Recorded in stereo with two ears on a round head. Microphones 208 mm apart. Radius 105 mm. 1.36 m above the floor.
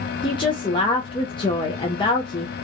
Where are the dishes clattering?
No dishes clattering in this recording.